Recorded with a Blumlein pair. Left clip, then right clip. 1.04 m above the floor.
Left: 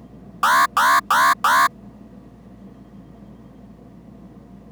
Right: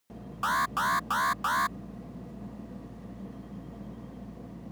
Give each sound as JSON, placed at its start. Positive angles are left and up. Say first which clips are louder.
{"t": 0.4, "sound": "an alarm", "louder": "left 12 dB", "azimuth_deg": 60}